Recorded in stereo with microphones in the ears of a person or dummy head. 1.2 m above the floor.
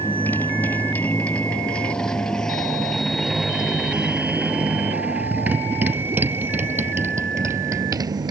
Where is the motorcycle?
5° left (ahead or behind); by 8.3 s 25° right (ahead or behind).